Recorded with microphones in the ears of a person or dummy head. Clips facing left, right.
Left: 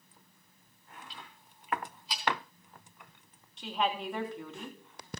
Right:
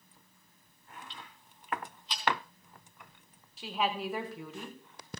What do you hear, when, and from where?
1.1 s ticking: 15° left (ahead or behind), 3 m
3.6 s a woman speaking: centre (ahead or behind), 1.2 m